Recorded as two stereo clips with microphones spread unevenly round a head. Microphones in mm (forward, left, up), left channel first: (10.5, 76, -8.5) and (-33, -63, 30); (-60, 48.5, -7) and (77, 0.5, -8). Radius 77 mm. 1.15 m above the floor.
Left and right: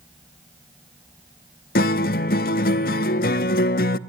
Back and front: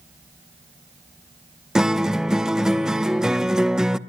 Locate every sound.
1.8 s a guitar: 65° left, 0.6 m